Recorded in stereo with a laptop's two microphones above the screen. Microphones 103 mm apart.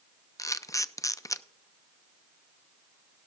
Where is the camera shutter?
30° left (ahead or behind), 0.6 m.